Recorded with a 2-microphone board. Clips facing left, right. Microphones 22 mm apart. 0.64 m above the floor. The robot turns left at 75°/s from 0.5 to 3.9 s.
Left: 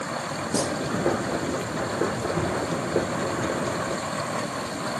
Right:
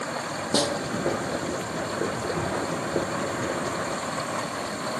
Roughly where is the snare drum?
Right.